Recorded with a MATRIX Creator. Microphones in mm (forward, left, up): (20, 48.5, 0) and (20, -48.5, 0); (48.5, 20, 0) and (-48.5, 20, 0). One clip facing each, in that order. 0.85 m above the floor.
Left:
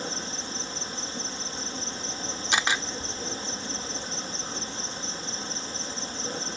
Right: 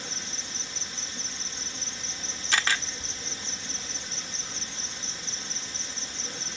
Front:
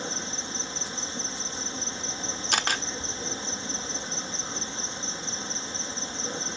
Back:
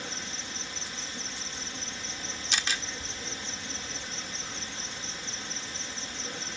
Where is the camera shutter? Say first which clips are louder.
Left 1 dB, front 6 dB; 20° left.